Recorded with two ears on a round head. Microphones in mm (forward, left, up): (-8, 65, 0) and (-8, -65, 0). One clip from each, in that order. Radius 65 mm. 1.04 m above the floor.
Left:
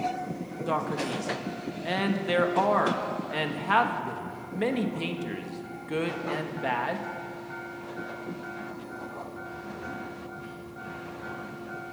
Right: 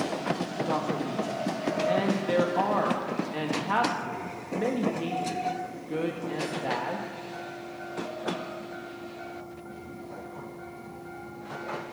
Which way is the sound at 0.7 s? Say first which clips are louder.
Left 3 dB; 40° left (ahead or behind).